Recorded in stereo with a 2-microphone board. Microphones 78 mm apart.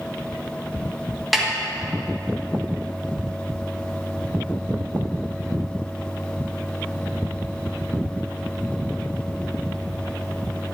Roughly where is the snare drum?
Centre.